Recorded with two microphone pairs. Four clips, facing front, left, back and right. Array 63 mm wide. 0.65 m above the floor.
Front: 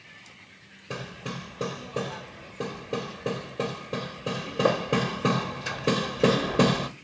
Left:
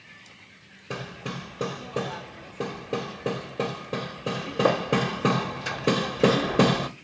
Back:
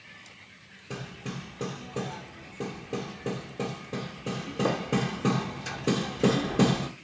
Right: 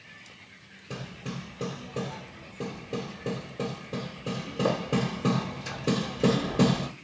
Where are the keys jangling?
No keys jangling in this recording.